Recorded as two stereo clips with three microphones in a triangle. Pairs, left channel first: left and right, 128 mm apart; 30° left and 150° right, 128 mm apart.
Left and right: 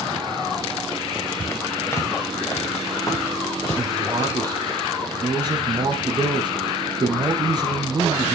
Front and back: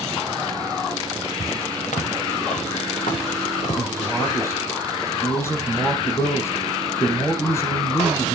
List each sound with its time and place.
1.4 s footsteps: 20° left, 2.5 m; by 4.4 s 30° left, 4 m
3.8 s a man speaking: 35° right, 3.5 m